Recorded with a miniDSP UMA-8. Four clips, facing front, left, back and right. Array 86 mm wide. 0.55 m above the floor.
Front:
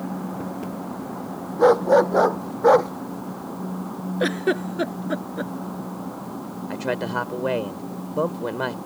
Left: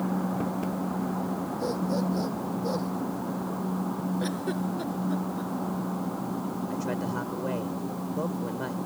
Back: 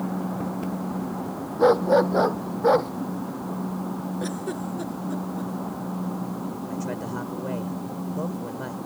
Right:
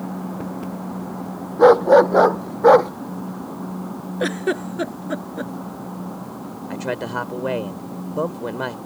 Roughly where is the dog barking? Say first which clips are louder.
Right 20 dB, front 3 dB; right.